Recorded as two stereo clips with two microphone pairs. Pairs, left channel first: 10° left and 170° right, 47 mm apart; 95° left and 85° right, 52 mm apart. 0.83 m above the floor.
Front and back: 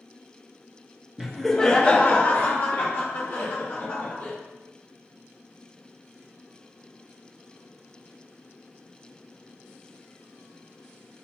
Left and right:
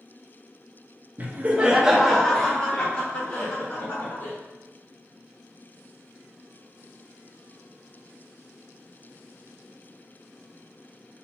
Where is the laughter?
90° right, 0.7 m; by 4.3 s 45° left, 1.7 m.